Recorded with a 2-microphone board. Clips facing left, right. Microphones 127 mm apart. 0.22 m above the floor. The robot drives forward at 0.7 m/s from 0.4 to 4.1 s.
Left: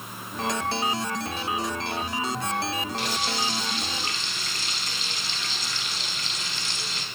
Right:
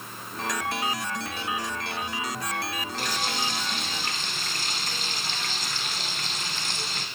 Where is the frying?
45° right (ahead or behind), 1.1 m; by 7.1 s 50° right (ahead or behind), 1.1 m.